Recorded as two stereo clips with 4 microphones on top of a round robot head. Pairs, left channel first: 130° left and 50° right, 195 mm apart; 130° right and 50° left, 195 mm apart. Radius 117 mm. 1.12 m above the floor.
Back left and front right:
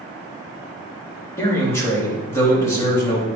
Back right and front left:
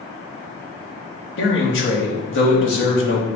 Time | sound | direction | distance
1.4 | a man speaking | 150° right | 2.5 m